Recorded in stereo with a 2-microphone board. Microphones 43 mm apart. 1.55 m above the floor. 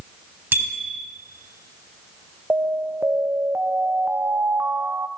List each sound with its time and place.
0.5 s a bicycle bell: 50° right (ahead or behind), 4.5 m
2.5 s an alarm: 75° right (ahead or behind), 0.8 m